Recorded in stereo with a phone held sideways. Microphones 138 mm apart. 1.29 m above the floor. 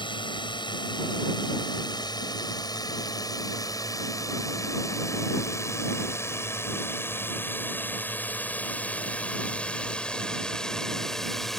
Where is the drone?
35° left (ahead or behind); by 11.6 s 5° left (ahead or behind).